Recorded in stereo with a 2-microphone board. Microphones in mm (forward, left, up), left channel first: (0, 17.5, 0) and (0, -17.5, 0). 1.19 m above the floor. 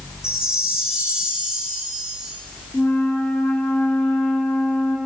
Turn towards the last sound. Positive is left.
turn(degrees=65)  # may be behind; listen again after turning